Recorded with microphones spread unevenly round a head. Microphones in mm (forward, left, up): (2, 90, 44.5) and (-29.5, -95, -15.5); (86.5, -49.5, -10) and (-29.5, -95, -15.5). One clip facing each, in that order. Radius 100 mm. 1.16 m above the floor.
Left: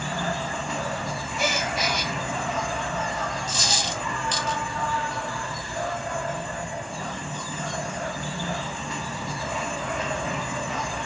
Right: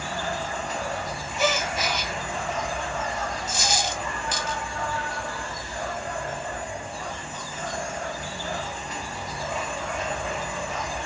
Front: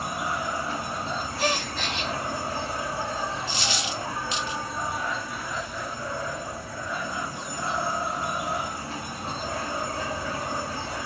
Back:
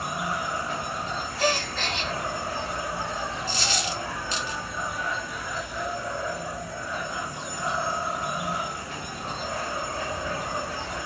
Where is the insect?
95° left, 1.3 m.